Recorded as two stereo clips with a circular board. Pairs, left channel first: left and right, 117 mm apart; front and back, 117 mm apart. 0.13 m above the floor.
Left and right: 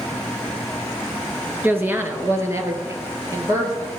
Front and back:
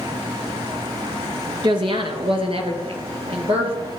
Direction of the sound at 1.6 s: 160° right.